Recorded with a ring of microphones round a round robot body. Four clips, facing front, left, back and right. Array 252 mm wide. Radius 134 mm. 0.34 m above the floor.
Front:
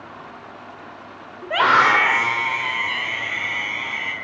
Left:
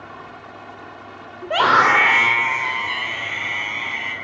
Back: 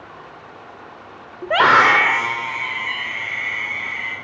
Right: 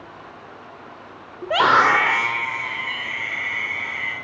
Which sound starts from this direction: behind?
A scream, at 1.4 s.